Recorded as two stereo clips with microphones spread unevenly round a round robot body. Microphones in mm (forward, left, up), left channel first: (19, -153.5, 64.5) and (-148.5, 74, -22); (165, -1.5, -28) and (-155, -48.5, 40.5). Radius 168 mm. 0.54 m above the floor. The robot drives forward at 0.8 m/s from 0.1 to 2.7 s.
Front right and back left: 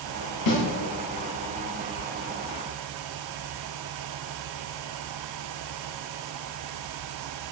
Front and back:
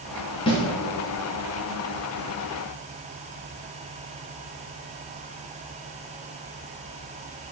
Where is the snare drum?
65° right, 2.5 m; by 0.6 s 70° right, 2.5 m.